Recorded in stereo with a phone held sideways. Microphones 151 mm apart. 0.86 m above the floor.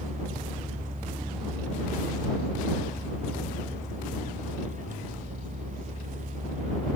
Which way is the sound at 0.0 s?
55° right (ahead or behind).